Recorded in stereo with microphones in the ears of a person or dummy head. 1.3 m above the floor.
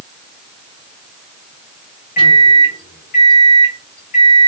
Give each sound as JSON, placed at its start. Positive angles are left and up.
{"t": 2.2, "sound": "a microwave", "side_deg": 50, "distance_m": 1.3}